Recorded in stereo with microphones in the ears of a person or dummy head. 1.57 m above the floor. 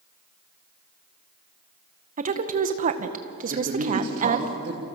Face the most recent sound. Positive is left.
turn(degrees=-50)  # may be behind; listen again after turning